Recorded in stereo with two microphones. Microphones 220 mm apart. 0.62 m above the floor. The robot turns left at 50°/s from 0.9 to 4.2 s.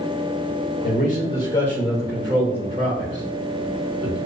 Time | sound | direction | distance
0.8 | a man speaking | 45° left (ahead or behind) | 1.9 m